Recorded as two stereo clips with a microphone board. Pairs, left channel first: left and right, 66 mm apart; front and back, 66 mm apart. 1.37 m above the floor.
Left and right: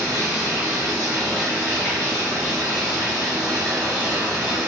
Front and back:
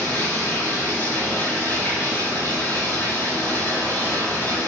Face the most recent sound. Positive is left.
turn(degrees=-65)